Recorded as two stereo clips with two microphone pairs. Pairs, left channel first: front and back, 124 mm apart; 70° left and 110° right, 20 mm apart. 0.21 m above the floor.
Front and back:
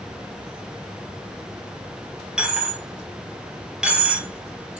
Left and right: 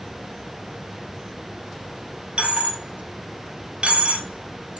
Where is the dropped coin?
100° right, 1.0 m.